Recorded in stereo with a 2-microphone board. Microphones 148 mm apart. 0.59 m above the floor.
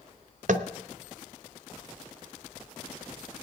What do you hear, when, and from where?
0.5 s tapping: 60° right (ahead or behind), 0.7 m